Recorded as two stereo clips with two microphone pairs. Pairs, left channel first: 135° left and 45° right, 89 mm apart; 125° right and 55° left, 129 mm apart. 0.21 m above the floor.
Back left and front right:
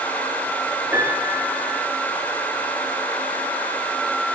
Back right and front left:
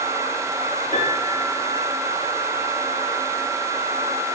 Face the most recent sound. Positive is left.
turn(degrees=-105)